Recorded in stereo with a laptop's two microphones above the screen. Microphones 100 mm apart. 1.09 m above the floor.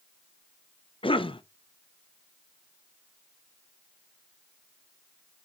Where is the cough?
60° left (ahead or behind), 0.6 m.